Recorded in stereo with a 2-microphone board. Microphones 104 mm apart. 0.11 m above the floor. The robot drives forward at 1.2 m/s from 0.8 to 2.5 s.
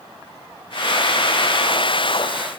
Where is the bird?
No bird in this recording.